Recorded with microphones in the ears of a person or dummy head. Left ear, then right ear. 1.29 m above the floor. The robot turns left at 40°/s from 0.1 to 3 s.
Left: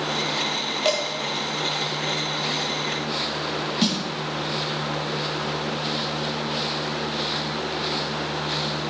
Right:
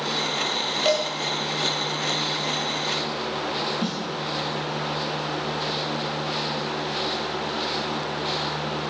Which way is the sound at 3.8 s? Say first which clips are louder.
Left 5 dB; 40° left (ahead or behind).